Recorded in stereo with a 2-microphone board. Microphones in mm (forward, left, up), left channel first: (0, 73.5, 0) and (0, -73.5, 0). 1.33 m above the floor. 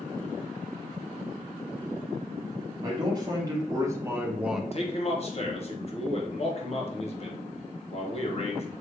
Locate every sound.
2.8 s a man speaking: 30° right (ahead or behind), 1.3 m; by 4.6 s centre (ahead or behind), 0.5 m
4.7 s a man speaking: 45° left (ahead or behind), 0.8 m